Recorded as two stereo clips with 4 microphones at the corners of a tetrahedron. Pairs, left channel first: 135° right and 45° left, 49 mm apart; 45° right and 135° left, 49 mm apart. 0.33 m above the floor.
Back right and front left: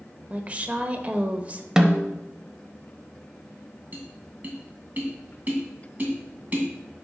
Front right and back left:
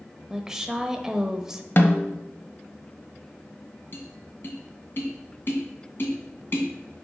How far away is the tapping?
About 2 m.